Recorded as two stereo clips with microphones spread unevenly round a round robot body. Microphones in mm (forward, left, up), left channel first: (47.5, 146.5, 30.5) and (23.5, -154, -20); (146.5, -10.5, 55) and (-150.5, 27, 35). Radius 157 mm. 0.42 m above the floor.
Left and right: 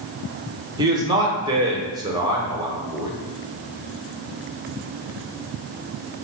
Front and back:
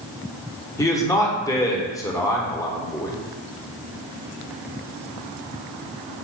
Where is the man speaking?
80° right, 0.7 m.